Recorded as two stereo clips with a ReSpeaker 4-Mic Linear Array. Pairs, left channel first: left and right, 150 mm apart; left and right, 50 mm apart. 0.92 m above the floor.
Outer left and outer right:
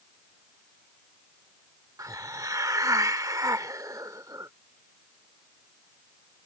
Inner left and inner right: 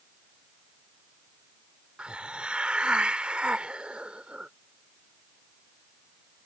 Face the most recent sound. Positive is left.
turn(degrees=-20)  # may be behind; listen again after turning